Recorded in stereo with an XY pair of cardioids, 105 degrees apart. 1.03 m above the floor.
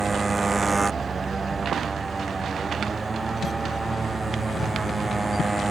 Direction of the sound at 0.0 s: 15° right.